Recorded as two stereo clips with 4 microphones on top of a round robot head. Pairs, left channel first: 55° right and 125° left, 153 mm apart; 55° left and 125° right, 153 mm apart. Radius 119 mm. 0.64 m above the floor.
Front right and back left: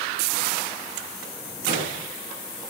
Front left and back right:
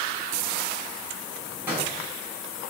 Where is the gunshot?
160° left, 5.5 m.